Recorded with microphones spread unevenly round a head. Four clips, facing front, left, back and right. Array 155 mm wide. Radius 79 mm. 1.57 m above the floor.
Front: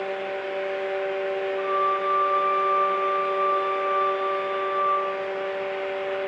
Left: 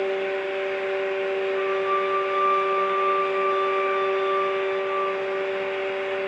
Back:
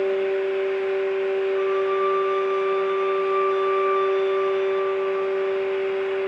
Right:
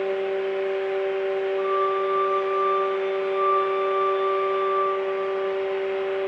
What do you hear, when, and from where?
0.0 s a fan: 100° left, 7 m
1.6 s a flute: 130° left, 9.5 m